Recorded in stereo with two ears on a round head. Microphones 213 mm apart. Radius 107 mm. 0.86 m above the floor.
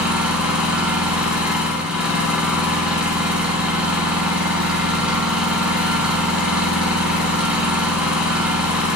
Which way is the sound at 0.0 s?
5° right (ahead or behind).